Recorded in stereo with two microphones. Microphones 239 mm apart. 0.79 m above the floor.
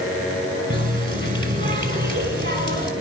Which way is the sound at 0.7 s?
55° right (ahead or behind).